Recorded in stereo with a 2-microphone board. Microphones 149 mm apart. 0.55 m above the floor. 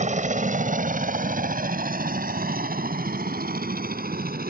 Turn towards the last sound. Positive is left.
turn(degrees=-75)  # may be behind; listen again after turning